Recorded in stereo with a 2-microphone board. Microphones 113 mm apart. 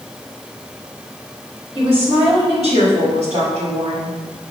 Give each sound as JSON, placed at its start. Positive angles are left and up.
{"t": 1.8, "sound": "a woman speaking", "side_deg": -65, "distance_m": 3.5}